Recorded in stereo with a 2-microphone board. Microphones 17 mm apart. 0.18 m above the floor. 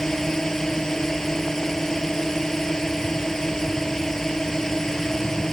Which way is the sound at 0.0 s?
25° left (ahead or behind).